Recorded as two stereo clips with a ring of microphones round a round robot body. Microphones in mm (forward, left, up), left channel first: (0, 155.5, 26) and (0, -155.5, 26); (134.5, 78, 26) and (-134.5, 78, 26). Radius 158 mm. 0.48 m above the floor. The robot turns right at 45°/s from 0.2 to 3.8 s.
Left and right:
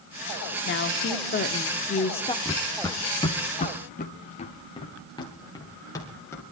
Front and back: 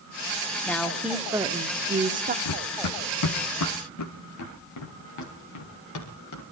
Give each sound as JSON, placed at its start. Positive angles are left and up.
{"t": 0.7, "sound": "a woman speaking", "azimuth_deg": 80, "distance_m": 1.0}
{"t": 2.5, "sound": "running footsteps", "azimuth_deg": 10, "distance_m": 1.2}